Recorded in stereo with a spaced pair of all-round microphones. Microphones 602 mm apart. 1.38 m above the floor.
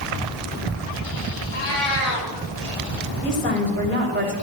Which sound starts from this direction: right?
A cat meowing, at 1.5 s.